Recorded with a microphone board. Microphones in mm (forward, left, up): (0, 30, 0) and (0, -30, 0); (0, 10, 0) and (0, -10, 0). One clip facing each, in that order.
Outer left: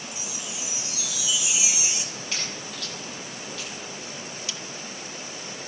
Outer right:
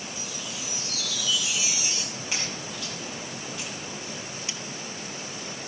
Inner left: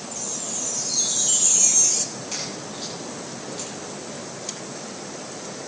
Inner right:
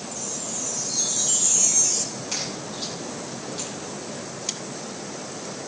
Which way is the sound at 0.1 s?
15° left (ahead or behind).